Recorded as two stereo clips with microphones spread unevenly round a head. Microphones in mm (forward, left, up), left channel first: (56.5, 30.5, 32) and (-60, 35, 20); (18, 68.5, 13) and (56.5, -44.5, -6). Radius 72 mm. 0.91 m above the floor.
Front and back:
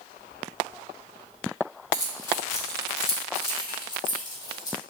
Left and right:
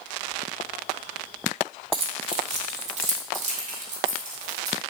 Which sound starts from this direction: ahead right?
Keys jangling, at 1.9 s.